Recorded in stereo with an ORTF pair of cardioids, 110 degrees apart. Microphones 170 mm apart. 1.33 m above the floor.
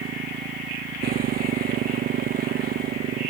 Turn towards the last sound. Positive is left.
turn(degrees=-65)